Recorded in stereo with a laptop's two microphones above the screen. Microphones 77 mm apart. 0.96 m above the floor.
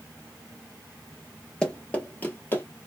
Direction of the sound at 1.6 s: 15° left (ahead or behind).